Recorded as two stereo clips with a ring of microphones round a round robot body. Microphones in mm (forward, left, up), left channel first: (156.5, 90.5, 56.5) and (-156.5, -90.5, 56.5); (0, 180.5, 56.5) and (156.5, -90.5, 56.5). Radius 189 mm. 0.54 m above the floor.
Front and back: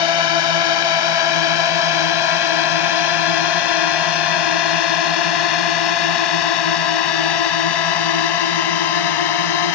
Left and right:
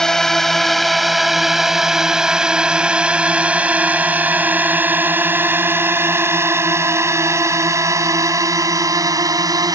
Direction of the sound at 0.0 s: 30° left.